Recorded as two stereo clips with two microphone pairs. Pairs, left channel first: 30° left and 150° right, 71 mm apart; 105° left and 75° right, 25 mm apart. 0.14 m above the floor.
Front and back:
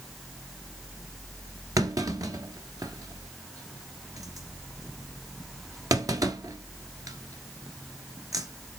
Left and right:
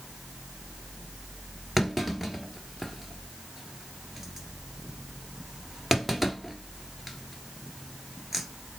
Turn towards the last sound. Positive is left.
turn(degrees=-160)